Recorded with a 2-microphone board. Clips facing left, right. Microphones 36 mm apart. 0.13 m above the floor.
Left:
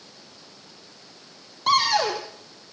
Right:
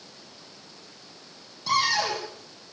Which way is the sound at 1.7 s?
50° left (ahead or behind).